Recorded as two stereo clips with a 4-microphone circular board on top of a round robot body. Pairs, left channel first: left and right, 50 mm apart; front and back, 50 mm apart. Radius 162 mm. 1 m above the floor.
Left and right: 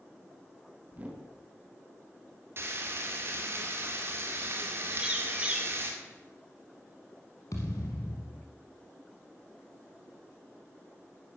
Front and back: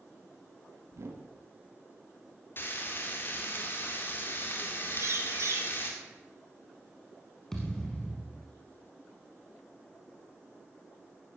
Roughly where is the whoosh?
Behind right.